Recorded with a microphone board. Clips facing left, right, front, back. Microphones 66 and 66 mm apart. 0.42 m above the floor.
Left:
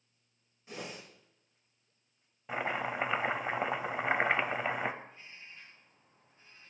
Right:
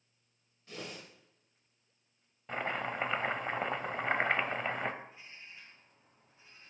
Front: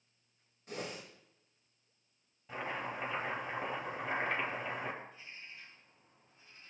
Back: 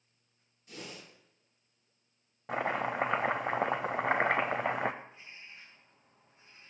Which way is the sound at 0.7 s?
20° left.